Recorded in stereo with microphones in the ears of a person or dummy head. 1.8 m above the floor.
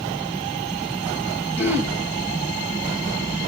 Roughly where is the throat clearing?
Centre.